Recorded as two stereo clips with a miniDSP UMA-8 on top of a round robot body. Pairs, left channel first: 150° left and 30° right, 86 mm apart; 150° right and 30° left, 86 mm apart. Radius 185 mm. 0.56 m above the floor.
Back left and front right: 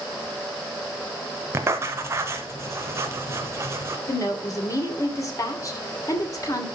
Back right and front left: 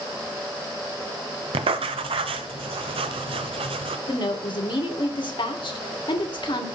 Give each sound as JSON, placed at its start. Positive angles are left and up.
{"t": 1.5, "sound": "writing", "azimuth_deg": 30, "distance_m": 0.7}
{"t": 4.1, "sound": "a woman speaking", "azimuth_deg": -160, "distance_m": 2.5}